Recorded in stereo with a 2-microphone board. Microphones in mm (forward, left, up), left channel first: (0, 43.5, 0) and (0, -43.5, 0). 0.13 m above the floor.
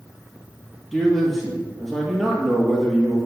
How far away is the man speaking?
About 3 m.